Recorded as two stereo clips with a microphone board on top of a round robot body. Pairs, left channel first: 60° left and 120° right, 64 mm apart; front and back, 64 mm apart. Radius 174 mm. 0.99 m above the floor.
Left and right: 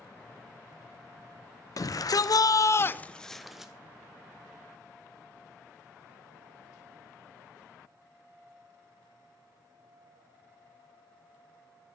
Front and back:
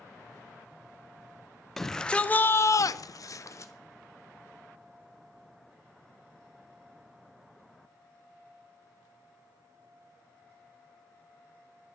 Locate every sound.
1.8 s a shout: 85° left, 0.9 m; by 3.7 s 40° right, 0.9 m